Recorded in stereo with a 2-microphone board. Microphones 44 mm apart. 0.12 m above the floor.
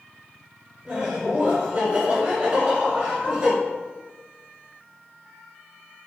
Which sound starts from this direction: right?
Laughter, at 0.8 s.